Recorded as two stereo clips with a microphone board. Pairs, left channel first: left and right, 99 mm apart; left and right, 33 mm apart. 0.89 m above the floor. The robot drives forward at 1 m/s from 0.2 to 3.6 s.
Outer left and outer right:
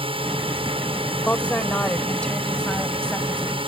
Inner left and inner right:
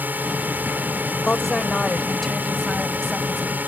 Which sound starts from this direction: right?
A drone, at 0.0 s.